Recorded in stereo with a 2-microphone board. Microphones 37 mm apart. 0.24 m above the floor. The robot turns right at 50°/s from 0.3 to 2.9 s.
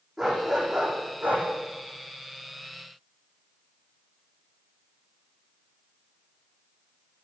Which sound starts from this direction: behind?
A dog barking, at 0.2 s.